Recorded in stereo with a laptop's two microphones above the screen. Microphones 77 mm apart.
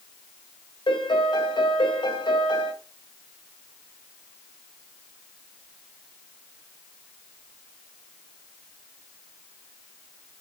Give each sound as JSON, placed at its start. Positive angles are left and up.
{"t": 0.9, "sound": "a piano", "side_deg": 70, "distance_m": 1.8}